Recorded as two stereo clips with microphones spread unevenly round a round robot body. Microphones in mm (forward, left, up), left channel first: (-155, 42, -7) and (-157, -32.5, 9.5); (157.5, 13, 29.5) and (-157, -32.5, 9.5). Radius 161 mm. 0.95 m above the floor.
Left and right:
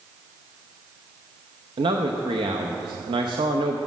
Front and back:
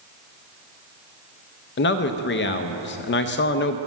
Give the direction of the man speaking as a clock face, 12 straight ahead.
2 o'clock.